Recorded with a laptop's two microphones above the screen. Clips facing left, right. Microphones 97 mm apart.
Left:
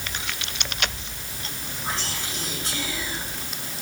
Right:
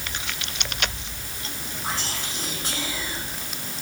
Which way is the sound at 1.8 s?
35° right (ahead or behind).